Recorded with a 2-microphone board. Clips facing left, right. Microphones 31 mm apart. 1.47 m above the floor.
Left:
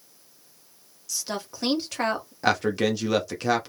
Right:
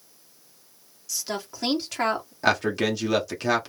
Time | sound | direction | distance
1.1 | a woman speaking | centre (ahead or behind) | 1.3 m
2.4 | a man speaking | centre (ahead or behind) | 0.7 m